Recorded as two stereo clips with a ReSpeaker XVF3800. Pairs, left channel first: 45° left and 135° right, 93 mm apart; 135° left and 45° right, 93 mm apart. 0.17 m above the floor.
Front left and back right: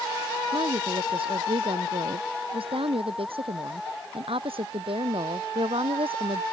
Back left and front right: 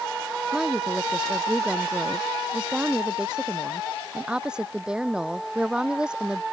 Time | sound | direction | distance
0.5 | a woman speaking | 125° right | ?